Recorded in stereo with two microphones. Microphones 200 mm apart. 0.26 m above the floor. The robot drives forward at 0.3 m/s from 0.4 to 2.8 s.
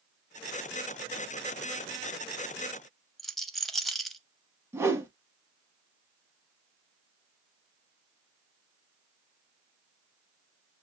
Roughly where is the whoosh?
Centre.